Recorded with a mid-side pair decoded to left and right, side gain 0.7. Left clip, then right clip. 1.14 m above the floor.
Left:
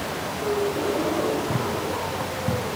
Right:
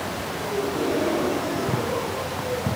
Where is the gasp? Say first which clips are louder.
Left 2 dB; 65° right, 4.5 m.